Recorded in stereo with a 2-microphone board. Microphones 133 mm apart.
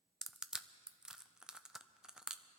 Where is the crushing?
5° right (ahead or behind), 0.5 m.